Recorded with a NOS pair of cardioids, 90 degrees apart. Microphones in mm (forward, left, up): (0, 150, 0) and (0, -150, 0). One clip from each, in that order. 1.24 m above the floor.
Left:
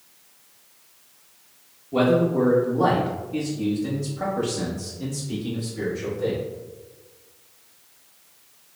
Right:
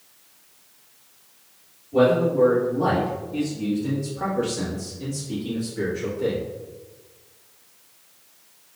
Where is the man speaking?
65° left, 1.7 m; by 6.4 s 20° right, 2.5 m.